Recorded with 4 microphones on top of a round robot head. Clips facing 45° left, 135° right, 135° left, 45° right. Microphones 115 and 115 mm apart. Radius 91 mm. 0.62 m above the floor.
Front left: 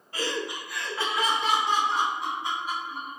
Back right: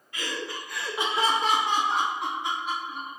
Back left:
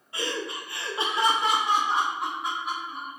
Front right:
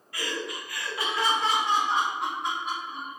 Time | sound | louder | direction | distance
0.1 | laughter | front left 3 dB, back left 2 dB | 80° left | 0.7 m